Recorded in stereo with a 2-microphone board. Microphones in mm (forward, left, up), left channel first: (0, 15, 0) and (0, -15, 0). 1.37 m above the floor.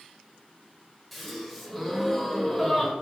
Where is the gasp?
Centre (ahead or behind), 0.5 m.